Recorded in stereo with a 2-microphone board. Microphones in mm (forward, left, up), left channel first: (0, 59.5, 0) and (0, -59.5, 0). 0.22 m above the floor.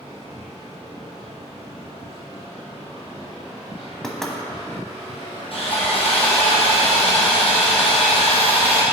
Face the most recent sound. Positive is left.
turn(degrees=55)  # may be behind; listen again after turning